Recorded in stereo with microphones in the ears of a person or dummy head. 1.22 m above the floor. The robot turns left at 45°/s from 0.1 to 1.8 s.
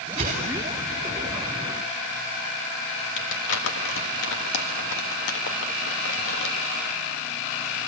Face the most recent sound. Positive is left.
turn(degrees=65)  # may be behind; listen again after turning